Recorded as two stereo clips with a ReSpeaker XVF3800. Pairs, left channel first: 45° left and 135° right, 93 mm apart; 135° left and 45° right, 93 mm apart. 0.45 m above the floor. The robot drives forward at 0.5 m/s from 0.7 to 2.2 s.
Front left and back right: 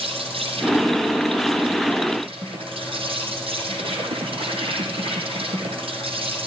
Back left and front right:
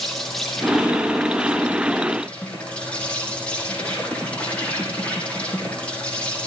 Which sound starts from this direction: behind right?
An insect, at 0.0 s.